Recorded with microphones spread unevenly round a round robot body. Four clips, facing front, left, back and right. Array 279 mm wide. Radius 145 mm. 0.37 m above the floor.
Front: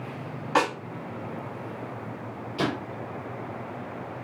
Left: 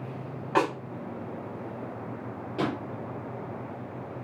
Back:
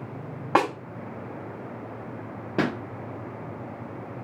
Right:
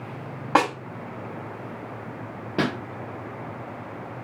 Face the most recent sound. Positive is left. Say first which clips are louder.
# right 4 dB, back 2 dB
turn(degrees=-115)